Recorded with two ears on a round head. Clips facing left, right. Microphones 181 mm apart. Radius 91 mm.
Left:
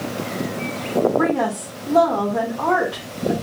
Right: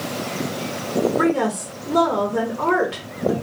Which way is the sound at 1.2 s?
30° right (ahead or behind).